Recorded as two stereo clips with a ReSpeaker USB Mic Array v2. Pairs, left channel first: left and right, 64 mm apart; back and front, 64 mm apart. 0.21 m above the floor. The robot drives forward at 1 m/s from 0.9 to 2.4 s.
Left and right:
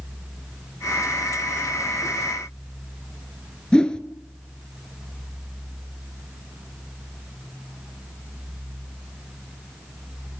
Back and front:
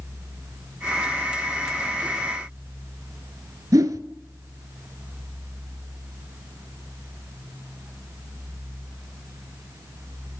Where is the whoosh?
15° left, 0.5 m.